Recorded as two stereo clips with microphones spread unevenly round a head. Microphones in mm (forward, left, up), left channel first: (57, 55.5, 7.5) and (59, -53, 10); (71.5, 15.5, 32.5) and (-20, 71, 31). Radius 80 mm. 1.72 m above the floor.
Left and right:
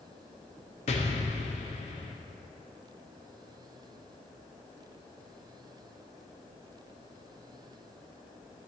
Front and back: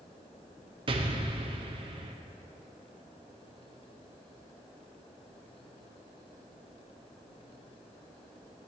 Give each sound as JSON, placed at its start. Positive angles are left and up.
{"t": 0.9, "sound": "an explosion", "azimuth_deg": 115, "distance_m": 0.7}